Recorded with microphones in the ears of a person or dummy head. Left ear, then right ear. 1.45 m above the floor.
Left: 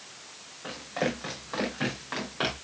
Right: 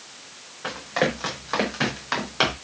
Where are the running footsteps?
70° right (ahead or behind), 6 m; by 2.5 s 75° right (ahead or behind), 5.5 m.